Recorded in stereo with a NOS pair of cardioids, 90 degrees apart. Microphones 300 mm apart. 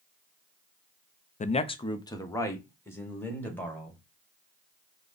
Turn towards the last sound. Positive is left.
turn(degrees=5)